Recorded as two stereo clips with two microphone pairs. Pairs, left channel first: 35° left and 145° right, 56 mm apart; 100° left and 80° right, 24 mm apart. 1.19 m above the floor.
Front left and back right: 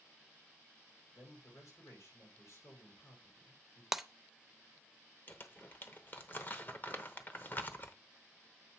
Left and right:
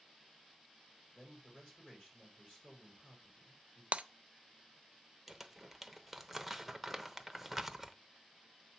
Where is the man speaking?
60° left, 5 m.